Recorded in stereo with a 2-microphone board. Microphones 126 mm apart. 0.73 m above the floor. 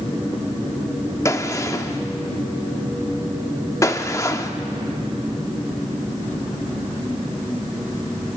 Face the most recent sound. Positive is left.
turn(degrees=25)  # may be behind; listen again after turning